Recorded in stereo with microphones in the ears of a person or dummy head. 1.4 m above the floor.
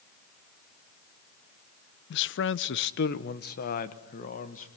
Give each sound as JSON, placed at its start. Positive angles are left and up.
{"t": 2.1, "sound": "a man speaking", "side_deg": 50, "distance_m": 0.6}